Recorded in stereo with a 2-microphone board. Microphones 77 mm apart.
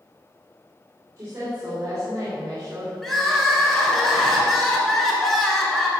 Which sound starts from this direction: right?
A woman speaking, at 1.2 s.